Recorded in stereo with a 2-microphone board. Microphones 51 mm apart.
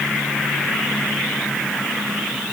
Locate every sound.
Only background noise.